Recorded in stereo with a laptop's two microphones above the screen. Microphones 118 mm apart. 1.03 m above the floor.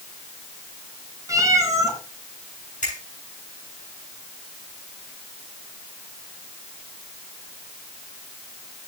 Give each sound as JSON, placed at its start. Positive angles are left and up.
{"t": 1.3, "sound": "a cat meowing", "side_deg": -25, "distance_m": 1.8}
{"t": 2.8, "sound": "a finger snap", "side_deg": 80, "distance_m": 7.5}